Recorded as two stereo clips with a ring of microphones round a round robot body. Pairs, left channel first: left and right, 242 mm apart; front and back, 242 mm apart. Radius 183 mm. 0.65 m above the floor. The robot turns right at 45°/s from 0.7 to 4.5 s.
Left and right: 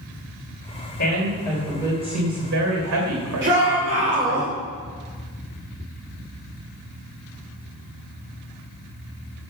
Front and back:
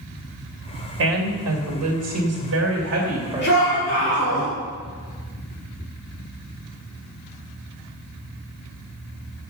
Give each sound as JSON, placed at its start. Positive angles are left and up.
{"t": 1.0, "sound": "a woman speaking", "azimuth_deg": 150, "distance_m": 3.0}
{"t": 3.4, "sound": "a shout", "azimuth_deg": -55, "distance_m": 3.0}